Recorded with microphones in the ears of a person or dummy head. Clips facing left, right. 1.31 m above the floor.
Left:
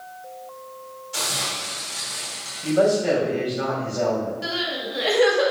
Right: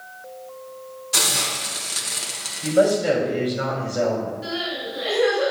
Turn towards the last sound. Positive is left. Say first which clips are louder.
# even
turn(degrees=70)  # may be behind; listen again after turning